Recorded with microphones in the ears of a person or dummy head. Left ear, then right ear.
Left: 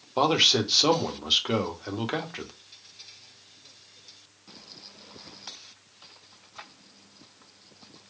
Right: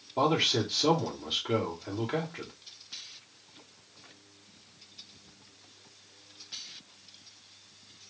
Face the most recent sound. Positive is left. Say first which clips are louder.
# left 5 dB
turn(degrees=60)  # may be behind; listen again after turning